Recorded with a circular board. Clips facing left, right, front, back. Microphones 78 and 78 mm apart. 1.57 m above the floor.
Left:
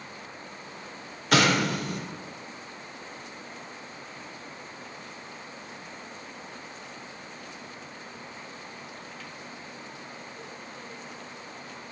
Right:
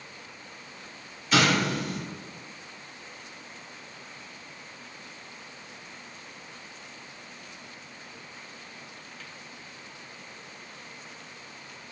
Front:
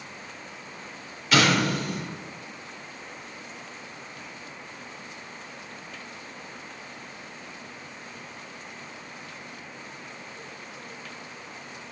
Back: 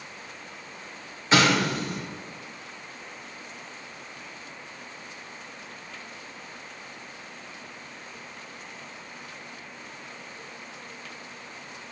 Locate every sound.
1.3 s an explosion: 120° left, 0.8 m